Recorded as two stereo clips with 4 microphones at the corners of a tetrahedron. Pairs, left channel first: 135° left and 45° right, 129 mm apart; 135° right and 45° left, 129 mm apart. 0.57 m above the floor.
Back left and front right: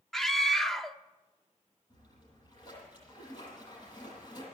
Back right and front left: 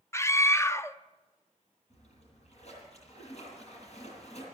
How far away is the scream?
About 0.6 m.